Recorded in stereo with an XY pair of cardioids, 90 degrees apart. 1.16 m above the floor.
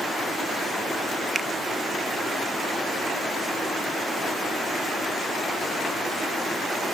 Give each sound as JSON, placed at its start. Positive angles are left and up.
{"t": 1.4, "sound": "a finger snap", "azimuth_deg": -50}